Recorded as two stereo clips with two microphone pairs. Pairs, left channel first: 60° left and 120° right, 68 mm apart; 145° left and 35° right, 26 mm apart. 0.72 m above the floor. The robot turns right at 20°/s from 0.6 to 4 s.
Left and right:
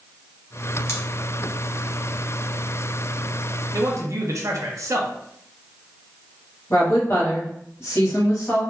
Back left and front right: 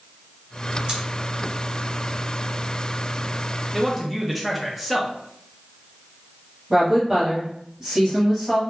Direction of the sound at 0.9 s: 15° left.